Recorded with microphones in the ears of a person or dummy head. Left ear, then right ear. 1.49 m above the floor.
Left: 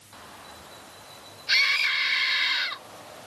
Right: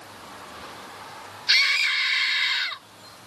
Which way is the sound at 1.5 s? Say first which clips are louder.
Right 2 dB; 20° right (ahead or behind).